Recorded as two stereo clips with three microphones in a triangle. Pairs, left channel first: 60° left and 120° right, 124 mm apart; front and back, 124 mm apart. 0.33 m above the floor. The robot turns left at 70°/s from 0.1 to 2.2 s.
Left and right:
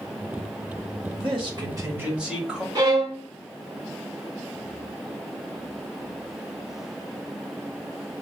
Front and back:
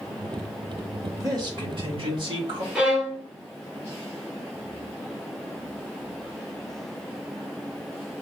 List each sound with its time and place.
1.2 s a man speaking: 125° right, 1.2 m; by 2.6 s 160° left, 1.2 m
2.8 s a violin: 105° right, 1.1 m